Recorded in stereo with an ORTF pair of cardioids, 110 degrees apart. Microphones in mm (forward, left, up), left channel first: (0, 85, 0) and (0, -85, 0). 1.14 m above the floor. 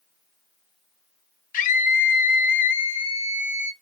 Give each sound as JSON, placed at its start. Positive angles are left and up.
{"t": 1.5, "sound": "a scream", "azimuth_deg": 50, "distance_m": 1.1}